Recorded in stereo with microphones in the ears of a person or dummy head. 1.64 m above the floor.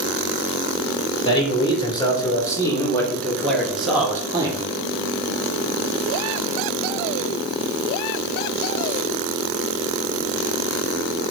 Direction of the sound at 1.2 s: 25° left (ahead or behind).